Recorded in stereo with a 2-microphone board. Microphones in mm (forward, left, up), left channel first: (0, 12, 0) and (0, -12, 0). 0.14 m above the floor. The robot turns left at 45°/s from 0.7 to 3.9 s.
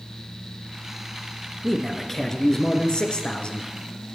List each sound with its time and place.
1.6 s a man speaking: 170° right, 2.5 m; by 3.7 s 100° left, 2.5 m